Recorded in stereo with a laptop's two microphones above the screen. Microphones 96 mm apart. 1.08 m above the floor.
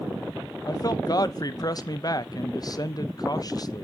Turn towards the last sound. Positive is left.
turn(degrees=45)  # may be behind; listen again after turning